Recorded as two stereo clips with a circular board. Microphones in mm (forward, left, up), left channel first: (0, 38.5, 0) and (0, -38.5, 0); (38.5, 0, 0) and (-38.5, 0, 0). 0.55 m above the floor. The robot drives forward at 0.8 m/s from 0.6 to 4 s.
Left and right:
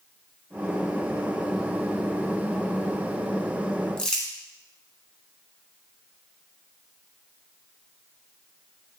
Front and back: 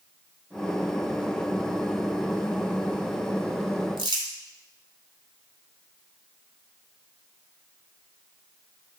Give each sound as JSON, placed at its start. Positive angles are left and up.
{"t": 4.0, "sound": "crumpling", "azimuth_deg": 170, "distance_m": 1.3}